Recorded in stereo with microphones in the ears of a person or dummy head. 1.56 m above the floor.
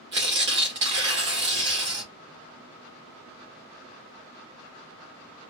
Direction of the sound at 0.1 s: 20° right (ahead or behind).